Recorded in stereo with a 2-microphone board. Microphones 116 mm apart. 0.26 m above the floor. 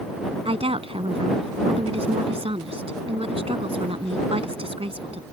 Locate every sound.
0.5 s a woman speaking: 55° right (ahead or behind)